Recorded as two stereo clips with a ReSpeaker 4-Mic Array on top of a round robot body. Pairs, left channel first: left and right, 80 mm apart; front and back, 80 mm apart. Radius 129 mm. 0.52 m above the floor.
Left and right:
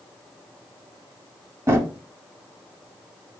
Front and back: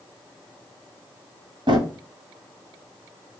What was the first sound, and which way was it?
A drawer, 150° right.